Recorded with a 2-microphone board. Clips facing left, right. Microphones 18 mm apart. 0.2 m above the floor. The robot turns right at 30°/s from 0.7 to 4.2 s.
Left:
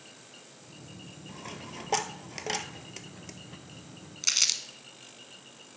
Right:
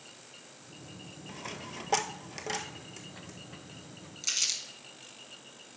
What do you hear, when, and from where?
1.3 s a dropped coin: 20° right (ahead or behind), 0.6 m; by 3.4 s 40° left (ahead or behind), 0.6 m
4.2 s crumpling: 30° left (ahead or behind), 0.8 m